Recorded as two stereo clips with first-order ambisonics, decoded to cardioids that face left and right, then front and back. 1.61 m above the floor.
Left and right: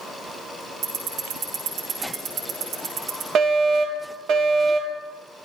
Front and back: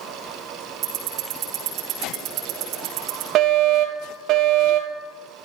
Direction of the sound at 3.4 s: 140° right.